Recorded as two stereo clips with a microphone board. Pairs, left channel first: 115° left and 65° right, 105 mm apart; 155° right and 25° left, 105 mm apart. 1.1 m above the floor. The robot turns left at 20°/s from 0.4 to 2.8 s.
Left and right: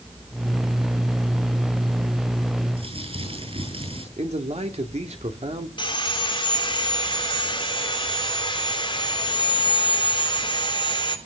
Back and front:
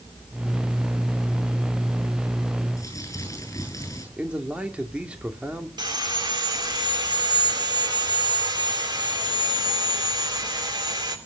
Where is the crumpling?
95° right, 9.5 m; by 4.1 s 100° right, 9.5 m.